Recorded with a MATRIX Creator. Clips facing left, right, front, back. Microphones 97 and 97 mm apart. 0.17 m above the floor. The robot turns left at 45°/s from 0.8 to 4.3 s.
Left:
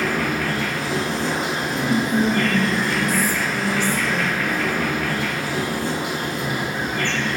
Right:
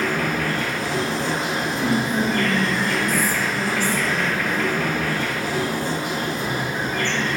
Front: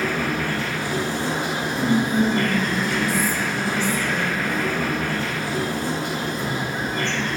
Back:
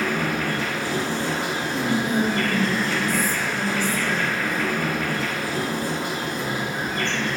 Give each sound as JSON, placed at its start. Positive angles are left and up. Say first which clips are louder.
{"t": 0.0, "sound": "an insect", "louder": "even, even", "azimuth_deg": 170, "distance_m": 1.4}
{"t": 1.7, "sound": "whispering", "louder": "left 2 dB, front 3 dB", "azimuth_deg": 135, "distance_m": 1.4}